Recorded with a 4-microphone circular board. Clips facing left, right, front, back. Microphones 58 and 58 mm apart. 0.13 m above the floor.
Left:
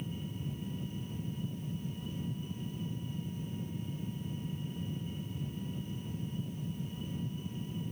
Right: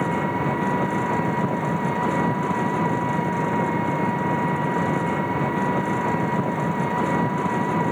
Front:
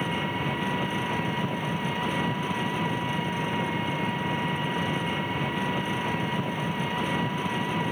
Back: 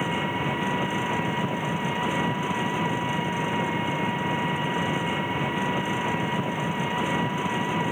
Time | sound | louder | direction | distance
0.0 | an engine running | right 19 dB, back 2 dB | 100° right | ?